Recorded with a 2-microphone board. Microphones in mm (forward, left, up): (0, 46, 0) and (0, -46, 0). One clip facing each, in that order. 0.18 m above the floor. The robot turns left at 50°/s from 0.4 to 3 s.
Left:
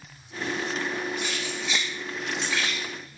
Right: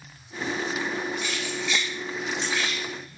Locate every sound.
1.2 s keys jangling: 40° left (ahead or behind), 2.5 m; by 3.2 s 40° right (ahead or behind), 2.5 m